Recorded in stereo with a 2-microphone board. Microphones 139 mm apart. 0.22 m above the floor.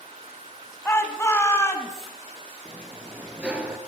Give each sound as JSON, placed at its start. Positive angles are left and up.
{"t": 0.8, "sound": "a shout", "side_deg": 15, "distance_m": 1.5}
{"t": 2.6, "sound": "a sliding door", "side_deg": -10, "distance_m": 1.4}